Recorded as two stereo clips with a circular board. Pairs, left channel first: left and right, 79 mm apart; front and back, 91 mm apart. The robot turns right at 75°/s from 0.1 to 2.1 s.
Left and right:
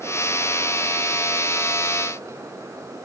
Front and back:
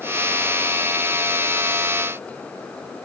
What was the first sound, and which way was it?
Only background noise.